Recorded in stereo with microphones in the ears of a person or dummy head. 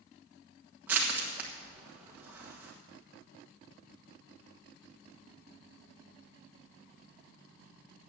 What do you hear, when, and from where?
0.9 s crushing: 5° right (ahead or behind), 1.3 m